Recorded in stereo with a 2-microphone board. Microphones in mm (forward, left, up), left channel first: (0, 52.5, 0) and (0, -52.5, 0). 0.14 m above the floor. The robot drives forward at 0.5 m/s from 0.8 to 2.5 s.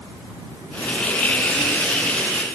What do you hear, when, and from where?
Only background noise.